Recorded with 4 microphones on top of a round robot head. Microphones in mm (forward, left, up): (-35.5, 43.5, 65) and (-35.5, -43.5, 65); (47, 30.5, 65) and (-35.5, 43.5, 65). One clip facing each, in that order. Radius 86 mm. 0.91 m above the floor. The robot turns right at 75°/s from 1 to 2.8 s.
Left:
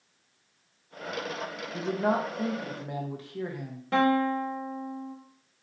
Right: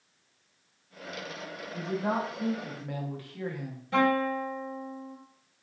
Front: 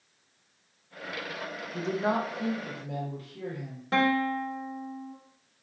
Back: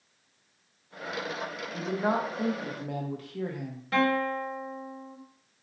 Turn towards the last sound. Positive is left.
turn(degrees=50)